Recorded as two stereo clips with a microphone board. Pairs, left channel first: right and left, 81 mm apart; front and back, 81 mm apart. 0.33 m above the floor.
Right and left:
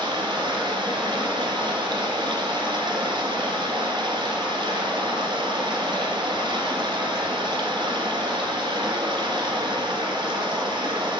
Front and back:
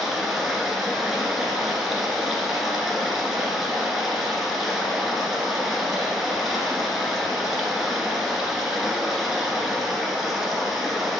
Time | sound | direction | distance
0.0 | running water | 95° left | 1.3 m